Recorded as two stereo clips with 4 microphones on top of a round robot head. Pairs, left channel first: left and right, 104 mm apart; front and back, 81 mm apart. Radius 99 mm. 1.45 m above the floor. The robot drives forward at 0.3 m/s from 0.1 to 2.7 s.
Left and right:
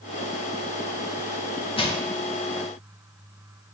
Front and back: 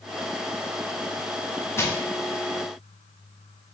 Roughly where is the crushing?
Ahead left.